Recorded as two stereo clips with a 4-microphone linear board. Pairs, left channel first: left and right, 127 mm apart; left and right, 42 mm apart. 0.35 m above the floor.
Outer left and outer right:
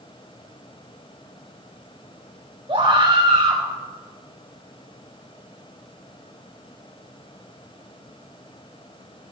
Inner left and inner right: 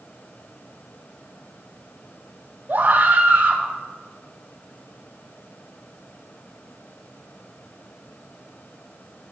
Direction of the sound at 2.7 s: 45° right (ahead or behind).